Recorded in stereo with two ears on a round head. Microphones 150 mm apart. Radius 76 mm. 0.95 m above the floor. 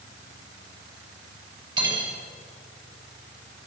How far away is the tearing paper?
No tearing paper in this recording.